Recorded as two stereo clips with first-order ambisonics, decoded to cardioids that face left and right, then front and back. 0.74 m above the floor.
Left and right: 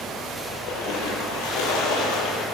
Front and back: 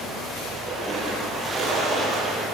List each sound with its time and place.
0.5 s a splash: 105° left, 8 m